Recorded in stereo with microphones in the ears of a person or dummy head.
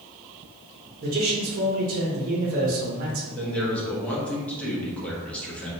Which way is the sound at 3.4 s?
10° left (ahead or behind).